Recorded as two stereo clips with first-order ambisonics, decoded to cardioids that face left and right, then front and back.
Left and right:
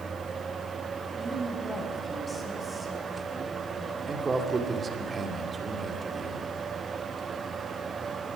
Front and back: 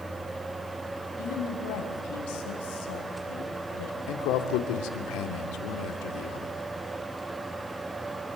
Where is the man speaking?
15° right, 2.5 m.